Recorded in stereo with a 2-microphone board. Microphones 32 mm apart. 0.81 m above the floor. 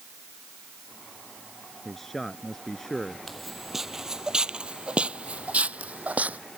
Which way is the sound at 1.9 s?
10° left (ahead or behind).